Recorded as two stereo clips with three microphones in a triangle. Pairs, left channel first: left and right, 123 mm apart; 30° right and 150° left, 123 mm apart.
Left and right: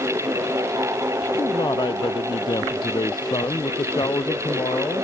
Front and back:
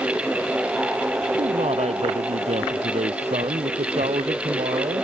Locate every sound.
1.4 s a man speaking: 140° left